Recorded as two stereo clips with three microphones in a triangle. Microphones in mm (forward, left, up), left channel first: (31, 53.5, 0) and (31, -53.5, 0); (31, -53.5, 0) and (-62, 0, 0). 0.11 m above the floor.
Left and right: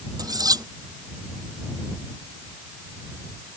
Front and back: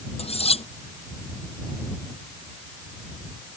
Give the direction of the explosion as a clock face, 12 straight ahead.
No explosion in this recording.